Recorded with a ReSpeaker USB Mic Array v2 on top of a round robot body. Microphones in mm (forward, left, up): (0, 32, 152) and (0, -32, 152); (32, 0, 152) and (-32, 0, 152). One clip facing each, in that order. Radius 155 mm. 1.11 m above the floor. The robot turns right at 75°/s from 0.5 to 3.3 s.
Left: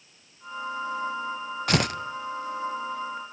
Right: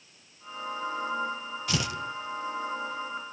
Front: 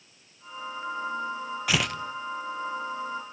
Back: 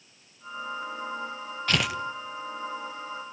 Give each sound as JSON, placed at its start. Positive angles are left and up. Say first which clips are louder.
{"t": 1.7, "sound": "tearing paper", "louder": "left 7 dB, back 1 dB", "azimuth_deg": 80, "distance_m": 0.8}